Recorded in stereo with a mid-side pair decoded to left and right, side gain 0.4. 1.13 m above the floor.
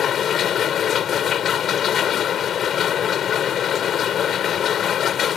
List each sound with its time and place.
0.0 s a machine running: 65° left